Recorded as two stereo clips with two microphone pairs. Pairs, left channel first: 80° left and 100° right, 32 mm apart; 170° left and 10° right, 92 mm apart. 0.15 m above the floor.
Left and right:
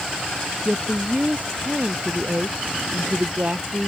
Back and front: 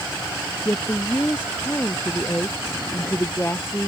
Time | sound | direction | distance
0.7 | a woman speaking | 120° right | ?